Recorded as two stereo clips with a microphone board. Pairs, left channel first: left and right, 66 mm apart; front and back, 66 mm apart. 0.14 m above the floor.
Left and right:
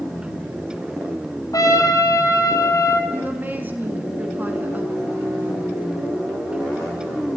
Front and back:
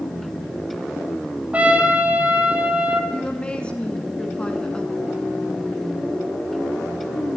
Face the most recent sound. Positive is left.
turn(degrees=-60)